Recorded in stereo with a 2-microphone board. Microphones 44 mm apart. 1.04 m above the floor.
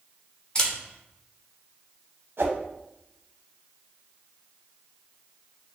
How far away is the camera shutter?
About 1.4 m.